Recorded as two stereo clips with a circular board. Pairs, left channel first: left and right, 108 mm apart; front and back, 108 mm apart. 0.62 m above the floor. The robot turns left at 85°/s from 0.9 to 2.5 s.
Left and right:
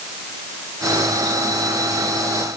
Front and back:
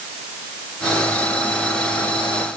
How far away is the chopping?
I don't hear chopping.